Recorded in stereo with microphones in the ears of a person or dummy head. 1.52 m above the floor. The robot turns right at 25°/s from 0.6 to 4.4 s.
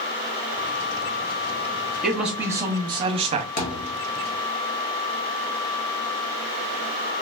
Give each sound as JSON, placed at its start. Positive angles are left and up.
{"t": 2.0, "sound": "a man speaking", "azimuth_deg": -175, "distance_m": 0.7}
{"t": 3.6, "sound": "a thud", "side_deg": 45, "distance_m": 1.1}